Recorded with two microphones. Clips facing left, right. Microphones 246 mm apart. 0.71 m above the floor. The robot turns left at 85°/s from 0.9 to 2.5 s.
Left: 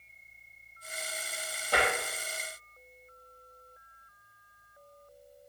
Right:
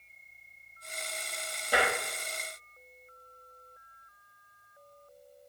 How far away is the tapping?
About 1.4 m.